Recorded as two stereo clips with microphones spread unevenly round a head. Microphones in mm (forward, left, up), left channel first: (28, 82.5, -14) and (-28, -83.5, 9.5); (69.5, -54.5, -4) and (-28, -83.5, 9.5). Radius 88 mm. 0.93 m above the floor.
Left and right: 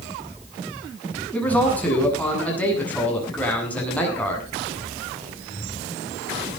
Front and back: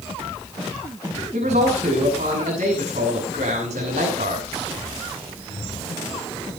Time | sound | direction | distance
1.3 | a man speaking | 155° left | 7.5 m